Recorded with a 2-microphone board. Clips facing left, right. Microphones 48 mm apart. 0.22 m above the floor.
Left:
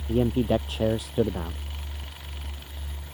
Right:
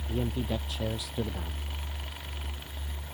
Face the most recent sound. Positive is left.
turn(degrees=40)  # may be behind; listen again after turning